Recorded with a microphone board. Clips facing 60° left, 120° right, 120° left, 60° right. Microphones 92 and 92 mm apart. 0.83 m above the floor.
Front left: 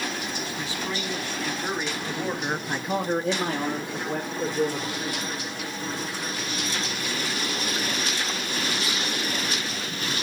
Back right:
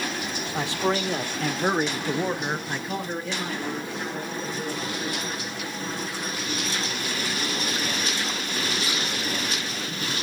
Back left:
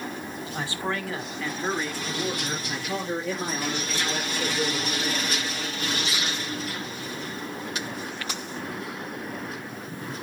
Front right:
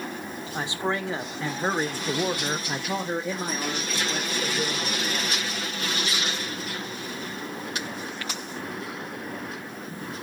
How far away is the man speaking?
About 2.5 m.